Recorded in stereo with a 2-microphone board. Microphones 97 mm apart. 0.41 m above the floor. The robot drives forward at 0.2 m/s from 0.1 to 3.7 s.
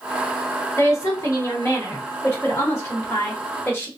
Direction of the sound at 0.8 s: 30° left (ahead or behind).